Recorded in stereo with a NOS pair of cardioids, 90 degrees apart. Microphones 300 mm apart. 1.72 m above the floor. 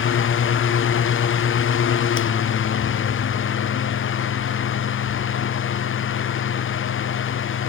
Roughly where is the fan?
Ahead left.